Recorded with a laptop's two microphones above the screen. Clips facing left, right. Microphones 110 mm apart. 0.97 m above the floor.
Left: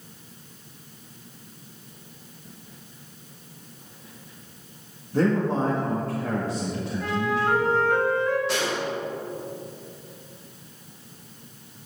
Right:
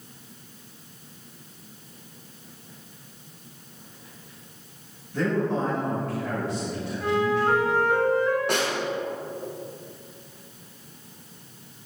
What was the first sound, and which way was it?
A man speaking, 35° left (ahead or behind).